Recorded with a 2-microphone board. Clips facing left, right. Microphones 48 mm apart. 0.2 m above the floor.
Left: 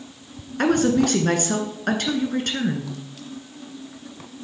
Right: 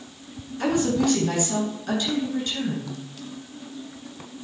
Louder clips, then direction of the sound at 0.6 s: Left 4 dB; 60° left (ahead or behind).